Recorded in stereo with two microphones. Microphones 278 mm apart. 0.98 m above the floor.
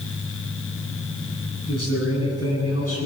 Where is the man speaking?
60° left (ahead or behind), 9 m.